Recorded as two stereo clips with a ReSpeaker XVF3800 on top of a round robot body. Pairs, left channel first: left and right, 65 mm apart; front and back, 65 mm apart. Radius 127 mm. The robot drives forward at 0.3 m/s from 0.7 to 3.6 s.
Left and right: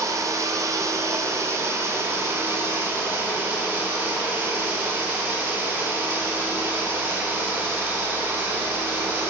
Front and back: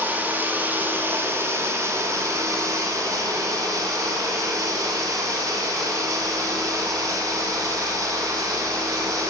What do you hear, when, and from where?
0.0 s running water: 120° right, 1.0 m; by 9.3 s 150° right, 1.6 m